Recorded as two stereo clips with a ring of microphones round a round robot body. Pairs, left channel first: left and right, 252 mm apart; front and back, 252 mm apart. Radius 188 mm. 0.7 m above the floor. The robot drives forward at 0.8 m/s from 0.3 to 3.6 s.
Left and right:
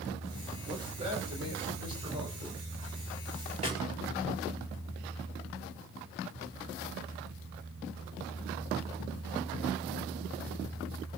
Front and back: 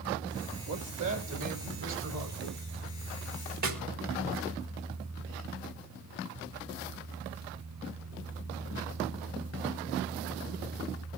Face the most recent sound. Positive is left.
turn(degrees=-160)